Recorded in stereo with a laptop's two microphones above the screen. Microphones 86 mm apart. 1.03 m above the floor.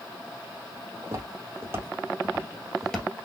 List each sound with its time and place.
1.0 s footsteps: 40° right (ahead or behind), 2 m; by 3.1 s 10° left (ahead or behind), 1.2 m